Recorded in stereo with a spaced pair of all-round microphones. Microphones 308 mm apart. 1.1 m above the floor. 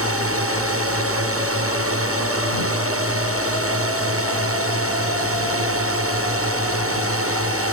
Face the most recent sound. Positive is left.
turn(degrees=-45)  # may be behind; listen again after turning